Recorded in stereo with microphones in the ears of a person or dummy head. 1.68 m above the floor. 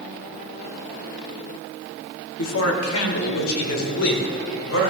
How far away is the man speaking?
About 1.1 m.